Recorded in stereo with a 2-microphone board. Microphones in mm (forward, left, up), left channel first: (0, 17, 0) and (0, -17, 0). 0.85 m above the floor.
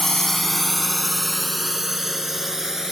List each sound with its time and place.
0.0 s a drone: 10° left (ahead or behind); by 2.9 s 15° right (ahead or behind)